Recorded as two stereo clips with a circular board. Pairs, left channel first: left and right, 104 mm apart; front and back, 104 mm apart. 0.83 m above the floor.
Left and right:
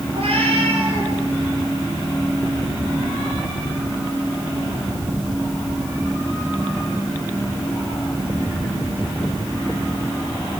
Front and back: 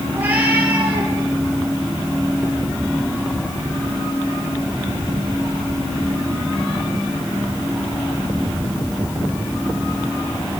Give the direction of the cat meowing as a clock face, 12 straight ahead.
4 o'clock.